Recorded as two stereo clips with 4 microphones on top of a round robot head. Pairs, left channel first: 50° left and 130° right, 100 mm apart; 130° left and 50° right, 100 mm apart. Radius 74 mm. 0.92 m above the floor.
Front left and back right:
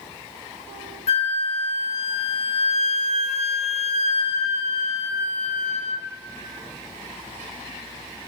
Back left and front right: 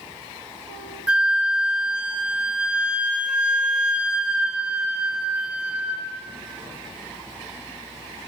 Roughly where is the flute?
Ahead left.